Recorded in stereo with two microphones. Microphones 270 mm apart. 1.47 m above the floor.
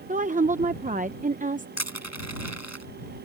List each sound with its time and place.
0.1 s a woman speaking: 30° right (ahead or behind)
1.8 s crushing: 80° left